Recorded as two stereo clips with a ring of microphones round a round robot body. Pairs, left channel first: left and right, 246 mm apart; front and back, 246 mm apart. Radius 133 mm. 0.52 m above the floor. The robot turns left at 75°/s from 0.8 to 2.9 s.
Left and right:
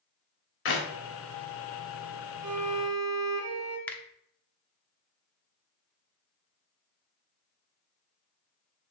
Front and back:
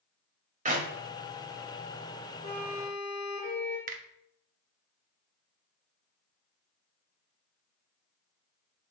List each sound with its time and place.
0.7 s a clap: 120° left, 1.9 m; by 0.9 s 115° left, 1.9 m
2.4 s a violin: 75° right, 2.5 m; by 3.8 s 110° right, 2.5 m
3.9 s a finger snap: 165° left, 0.9 m